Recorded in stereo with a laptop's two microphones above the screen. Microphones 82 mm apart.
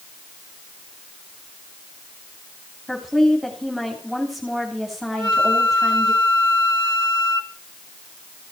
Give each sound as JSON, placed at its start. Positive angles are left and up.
{"t": 2.9, "sound": "a woman speaking", "side_deg": -5, "distance_m": 3.0}
{"t": 5.1, "sound": "a flute", "side_deg": -70, "distance_m": 2.5}